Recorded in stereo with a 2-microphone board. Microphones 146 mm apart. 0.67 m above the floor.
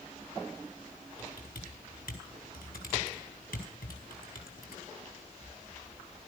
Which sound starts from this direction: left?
Typing on a keyboard, at 1.2 s.